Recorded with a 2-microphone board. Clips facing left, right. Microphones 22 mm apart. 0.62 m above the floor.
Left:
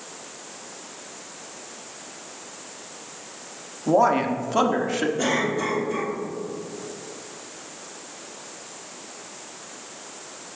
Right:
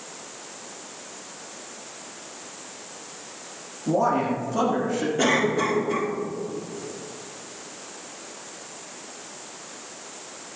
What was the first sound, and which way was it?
A man speaking, 45° left (ahead or behind).